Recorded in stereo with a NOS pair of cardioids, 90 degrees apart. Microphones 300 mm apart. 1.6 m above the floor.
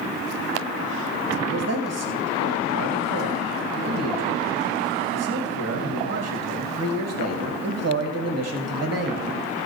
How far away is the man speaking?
About 2.5 m.